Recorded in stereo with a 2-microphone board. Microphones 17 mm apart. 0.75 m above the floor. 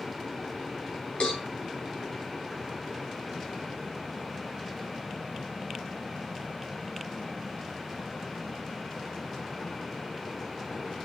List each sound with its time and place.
1.2 s a cowbell: 85° left, 4 m